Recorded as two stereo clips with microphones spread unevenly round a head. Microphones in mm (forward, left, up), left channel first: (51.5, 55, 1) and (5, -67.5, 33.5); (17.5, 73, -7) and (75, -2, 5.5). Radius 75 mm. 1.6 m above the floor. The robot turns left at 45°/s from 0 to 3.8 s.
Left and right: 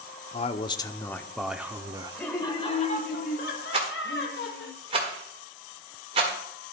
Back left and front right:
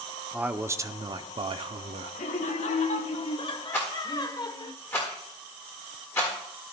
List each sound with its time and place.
0.3 s a man speaking: 25° left, 0.6 m; by 2.2 s 60° right, 0.6 m
2.1 s laughter: 150° left, 1.1 m; by 4.7 s 80° left, 1.1 m
3.7 s a rattle: 155° right, 1.4 m